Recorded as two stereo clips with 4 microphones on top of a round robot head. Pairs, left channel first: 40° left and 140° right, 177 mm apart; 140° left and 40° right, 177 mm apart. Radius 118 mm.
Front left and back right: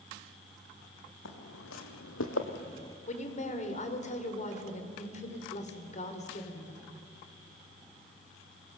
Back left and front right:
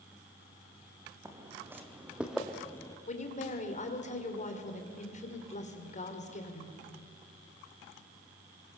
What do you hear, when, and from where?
1.2 s footsteps: 35° left, 2.5 m; by 3.0 s 105° left, 0.7 m
3.1 s a woman speaking: 90° left, 2.5 m